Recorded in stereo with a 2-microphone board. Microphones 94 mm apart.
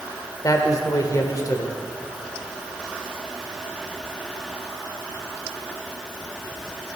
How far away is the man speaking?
About 1.4 m.